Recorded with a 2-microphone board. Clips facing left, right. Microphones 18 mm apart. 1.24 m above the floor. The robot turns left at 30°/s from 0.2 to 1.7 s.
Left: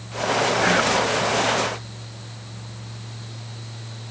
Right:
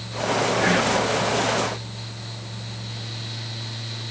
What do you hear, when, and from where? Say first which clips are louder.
0.6 s whispering: left 1 dB; 15° left (ahead or behind), 1.7 m; by 1.0 s 30° left (ahead or behind), 1.7 m